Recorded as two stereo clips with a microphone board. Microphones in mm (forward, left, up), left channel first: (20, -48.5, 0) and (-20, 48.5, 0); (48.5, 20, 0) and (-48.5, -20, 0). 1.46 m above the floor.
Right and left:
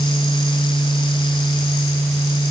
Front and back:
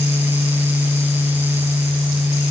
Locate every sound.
Only background noise.